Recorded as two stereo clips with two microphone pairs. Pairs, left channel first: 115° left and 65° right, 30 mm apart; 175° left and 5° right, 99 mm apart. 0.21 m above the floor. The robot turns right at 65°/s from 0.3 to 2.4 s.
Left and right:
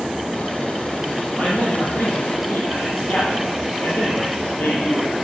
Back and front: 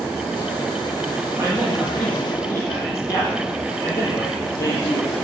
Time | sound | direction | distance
1.4 | a man speaking | 50° left | 7.5 m